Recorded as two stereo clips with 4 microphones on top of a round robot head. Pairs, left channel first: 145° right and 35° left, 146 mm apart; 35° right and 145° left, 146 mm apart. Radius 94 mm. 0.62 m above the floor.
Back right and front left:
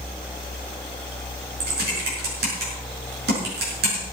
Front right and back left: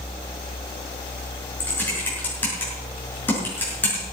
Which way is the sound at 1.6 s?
45° left.